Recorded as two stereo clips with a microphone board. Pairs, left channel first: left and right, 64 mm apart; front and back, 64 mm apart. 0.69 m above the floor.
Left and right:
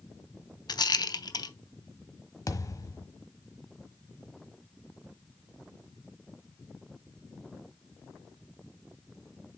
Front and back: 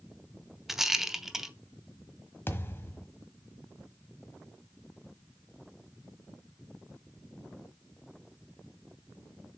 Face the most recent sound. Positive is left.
turn(degrees=55)